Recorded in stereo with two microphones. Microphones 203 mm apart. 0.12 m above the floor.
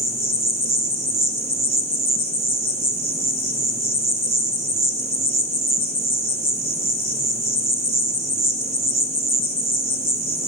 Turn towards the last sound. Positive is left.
turn(degrees=-35)  # may be behind; listen again after turning